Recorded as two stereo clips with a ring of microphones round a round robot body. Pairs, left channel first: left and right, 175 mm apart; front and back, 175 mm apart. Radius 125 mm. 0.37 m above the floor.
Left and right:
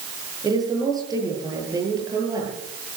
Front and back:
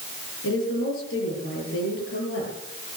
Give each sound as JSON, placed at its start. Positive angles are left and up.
{"t": 0.4, "sound": "a woman speaking", "azimuth_deg": -20, "distance_m": 10.0}